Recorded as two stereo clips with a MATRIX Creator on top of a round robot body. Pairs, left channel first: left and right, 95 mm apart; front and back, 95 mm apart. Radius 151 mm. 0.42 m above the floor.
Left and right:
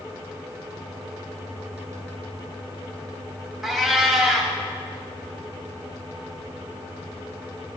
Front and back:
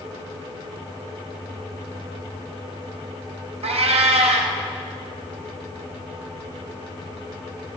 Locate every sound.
3.6 s a cat meowing: straight behind, 0.9 m